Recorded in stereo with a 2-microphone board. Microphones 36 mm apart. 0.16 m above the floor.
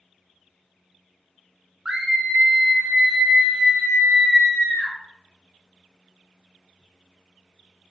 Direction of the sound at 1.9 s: 30° right (ahead or behind).